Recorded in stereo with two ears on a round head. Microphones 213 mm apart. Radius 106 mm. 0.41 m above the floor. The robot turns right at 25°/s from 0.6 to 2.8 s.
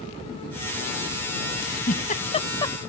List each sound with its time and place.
1.6 s a giggle: 45° left (ahead or behind); by 2.8 s 15° left (ahead or behind)